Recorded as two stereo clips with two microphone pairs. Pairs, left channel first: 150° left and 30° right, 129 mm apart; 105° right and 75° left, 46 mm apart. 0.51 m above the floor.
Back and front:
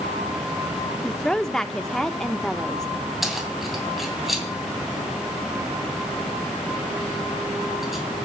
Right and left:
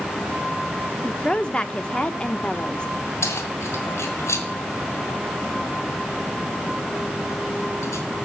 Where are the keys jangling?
115° right, 2 m.